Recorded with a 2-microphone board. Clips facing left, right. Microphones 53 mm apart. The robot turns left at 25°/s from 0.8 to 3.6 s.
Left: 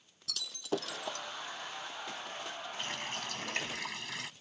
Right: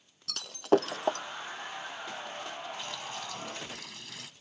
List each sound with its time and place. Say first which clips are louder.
0.3 s breaking glass: right 11 dB; 50° right (ahead or behind)
2.8 s a running tap: even; 40° left (ahead or behind); by 4.3 s 60° left (ahead or behind)